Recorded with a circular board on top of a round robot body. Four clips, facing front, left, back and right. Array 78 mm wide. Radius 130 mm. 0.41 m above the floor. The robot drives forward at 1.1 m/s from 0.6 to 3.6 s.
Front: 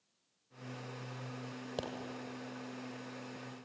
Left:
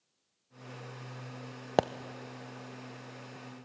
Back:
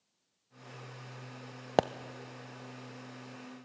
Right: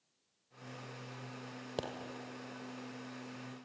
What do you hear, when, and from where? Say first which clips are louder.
1.8 s a pop: left 13 dB, back 14 dB; 135° left, 0.5 m; by 1.9 s 145° left, 0.6 m